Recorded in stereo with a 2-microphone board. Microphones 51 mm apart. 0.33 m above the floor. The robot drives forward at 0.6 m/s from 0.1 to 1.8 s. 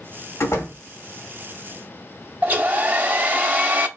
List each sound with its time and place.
0.4 s a door slam: 65° left (ahead or behind), 1.9 m
2.4 s a hair dryer: 30° right (ahead or behind), 0.7 m